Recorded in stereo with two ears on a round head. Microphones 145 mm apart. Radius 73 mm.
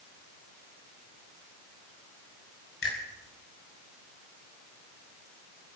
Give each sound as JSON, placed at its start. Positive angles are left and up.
{"t": 2.8, "sound": "a finger snap", "side_deg": 70, "distance_m": 6.0}